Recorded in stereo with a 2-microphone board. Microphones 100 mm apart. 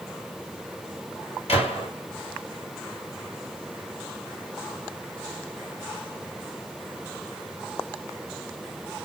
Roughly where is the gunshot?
Left.